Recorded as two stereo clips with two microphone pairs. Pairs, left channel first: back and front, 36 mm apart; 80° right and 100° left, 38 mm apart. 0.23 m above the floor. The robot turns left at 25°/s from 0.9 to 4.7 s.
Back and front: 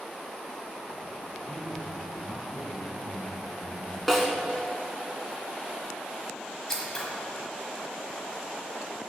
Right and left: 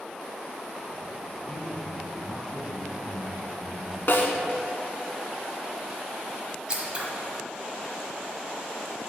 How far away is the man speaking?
About 1.2 m.